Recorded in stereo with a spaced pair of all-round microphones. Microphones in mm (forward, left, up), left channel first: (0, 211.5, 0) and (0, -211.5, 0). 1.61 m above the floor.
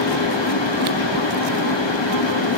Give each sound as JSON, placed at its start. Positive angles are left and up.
{"t": 0.0, "sound": "a fan", "side_deg": 85, "distance_m": 1.3}